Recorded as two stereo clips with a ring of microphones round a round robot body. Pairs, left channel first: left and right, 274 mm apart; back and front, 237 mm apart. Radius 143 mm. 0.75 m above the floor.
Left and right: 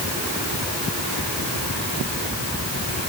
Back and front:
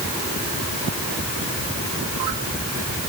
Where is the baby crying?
No baby crying in this recording.